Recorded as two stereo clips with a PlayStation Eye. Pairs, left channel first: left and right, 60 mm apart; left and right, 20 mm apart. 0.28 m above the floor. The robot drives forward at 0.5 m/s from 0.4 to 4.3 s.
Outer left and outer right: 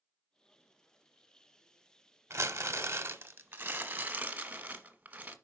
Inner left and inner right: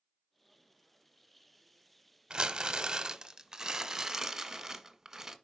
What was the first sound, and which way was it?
Crumpling, 50° right (ahead or behind).